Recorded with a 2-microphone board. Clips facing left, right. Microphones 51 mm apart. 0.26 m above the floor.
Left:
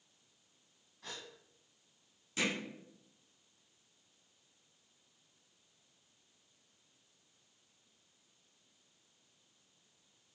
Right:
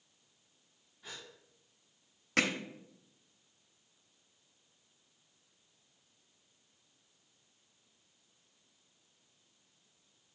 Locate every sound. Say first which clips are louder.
1.0 s a gasp: left 1 dB; 75° left (ahead or behind), 2.5 m
2.4 s hammering: right 5 dB; 70° right (ahead or behind), 0.9 m